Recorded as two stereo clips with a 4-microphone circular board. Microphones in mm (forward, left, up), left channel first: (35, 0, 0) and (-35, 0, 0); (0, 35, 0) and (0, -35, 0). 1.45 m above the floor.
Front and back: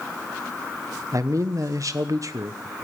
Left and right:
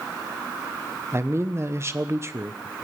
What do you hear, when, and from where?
1.1 s a man speaking: 140° right, 1.0 m